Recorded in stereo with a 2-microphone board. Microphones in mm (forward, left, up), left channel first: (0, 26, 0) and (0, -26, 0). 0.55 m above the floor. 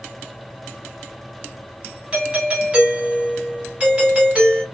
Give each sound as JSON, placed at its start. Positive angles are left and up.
{"t": 2.1, "sound": "a doorbell", "side_deg": -25, "distance_m": 1.5}